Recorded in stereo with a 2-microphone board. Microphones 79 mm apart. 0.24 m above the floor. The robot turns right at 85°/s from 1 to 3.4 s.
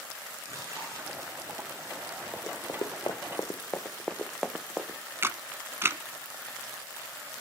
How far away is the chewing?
About 8 m.